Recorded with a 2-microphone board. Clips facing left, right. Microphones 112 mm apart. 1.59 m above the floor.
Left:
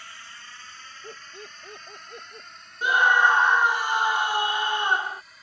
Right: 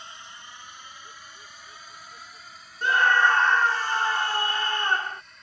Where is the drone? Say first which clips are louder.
Right 1 dB; 20° right (ahead or behind); by 5.4 s 5° left (ahead or behind).